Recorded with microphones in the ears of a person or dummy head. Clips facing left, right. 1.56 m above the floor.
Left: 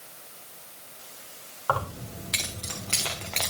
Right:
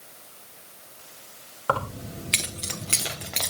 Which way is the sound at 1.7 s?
30° right (ahead or behind).